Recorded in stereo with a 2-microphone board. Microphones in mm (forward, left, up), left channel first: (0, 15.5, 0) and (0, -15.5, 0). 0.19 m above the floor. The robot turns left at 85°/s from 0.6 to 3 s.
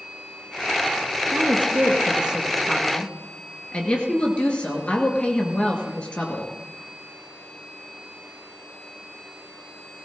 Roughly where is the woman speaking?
Right.